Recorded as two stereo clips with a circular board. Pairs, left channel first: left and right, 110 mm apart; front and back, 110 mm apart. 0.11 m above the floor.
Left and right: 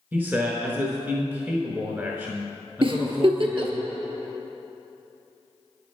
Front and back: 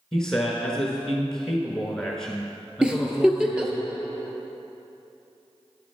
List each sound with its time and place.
0.1 s a man speaking: 75° right, 1.1 m
2.8 s a giggle: 100° right, 0.8 m